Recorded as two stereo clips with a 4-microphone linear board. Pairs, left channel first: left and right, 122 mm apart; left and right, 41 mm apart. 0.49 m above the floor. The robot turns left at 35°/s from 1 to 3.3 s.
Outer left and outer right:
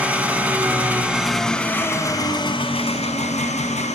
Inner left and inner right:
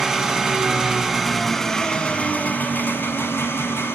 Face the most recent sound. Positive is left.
turn(degrees=110)